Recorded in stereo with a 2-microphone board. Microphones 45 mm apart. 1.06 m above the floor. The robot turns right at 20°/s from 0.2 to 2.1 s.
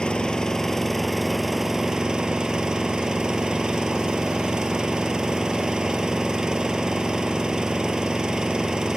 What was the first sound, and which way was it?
An engine running, 160° left.